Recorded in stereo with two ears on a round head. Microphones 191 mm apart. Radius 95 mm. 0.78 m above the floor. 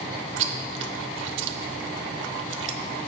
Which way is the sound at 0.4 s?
60° right (ahead or behind).